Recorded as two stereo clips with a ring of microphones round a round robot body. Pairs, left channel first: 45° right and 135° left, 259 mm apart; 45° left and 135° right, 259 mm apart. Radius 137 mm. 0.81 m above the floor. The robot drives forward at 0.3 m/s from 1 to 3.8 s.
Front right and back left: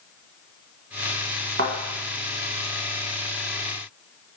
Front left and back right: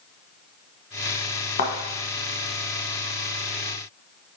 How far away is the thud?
About 0.9 m.